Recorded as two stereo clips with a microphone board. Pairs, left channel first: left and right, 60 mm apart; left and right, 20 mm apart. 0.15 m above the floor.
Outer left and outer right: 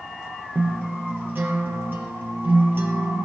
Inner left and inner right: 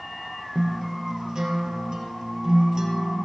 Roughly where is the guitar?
Right.